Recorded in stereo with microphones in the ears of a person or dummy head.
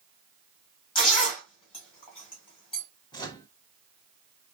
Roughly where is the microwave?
Left.